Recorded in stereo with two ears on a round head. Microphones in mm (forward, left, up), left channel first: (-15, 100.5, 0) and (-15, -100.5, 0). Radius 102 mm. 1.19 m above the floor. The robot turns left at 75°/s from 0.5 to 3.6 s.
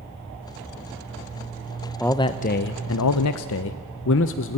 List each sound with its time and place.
2.0 s a man speaking: 175° left, 0.6 m; by 4.6 s 55° left, 0.6 m